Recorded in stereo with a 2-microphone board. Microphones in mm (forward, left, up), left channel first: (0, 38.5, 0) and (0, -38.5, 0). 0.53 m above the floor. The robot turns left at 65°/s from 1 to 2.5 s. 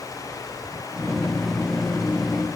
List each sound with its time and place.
Only background noise.